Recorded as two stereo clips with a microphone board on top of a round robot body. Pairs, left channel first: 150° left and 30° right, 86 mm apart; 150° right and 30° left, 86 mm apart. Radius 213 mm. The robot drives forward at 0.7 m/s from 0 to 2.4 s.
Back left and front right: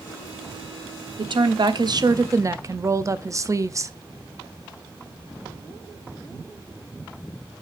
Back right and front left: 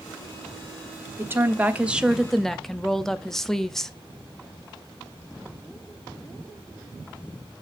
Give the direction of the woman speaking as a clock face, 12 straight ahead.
1 o'clock.